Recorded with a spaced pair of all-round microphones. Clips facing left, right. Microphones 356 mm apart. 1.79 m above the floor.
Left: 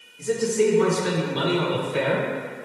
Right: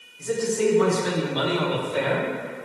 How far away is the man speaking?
About 2.5 m.